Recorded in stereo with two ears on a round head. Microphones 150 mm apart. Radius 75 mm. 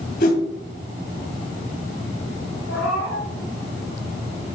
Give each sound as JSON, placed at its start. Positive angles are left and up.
{"t": 0.2, "sound": "a whoosh", "side_deg": 60, "distance_m": 2.5}
{"t": 2.7, "sound": "a cat meowing", "side_deg": 70, "distance_m": 4.5}